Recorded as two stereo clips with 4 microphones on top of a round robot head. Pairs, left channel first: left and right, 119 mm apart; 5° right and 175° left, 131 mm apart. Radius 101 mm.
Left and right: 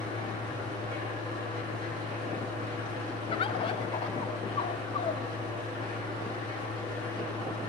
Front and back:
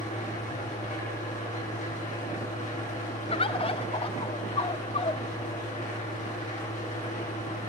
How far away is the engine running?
About 9.5 m.